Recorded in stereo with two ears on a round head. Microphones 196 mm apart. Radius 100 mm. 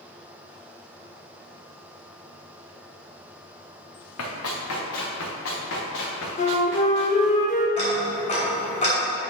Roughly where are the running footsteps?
Left.